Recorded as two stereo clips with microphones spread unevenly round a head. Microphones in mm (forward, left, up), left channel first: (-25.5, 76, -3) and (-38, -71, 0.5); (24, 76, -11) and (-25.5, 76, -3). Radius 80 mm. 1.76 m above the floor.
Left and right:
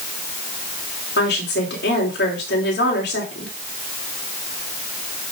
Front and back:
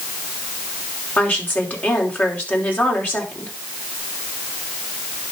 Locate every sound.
1.2 s a woman speaking: 55° left, 4.5 m